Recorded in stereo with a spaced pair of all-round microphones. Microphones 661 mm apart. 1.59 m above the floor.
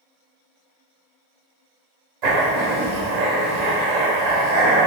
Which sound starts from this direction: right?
Writing, at 2.2 s.